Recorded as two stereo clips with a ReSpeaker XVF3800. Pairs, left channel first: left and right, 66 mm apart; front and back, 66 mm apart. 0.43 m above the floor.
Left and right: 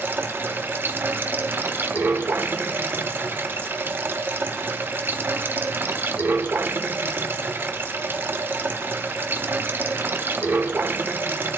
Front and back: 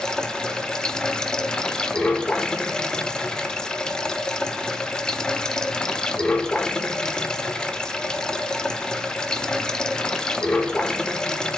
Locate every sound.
0.0 s running water: 70° right, 0.9 m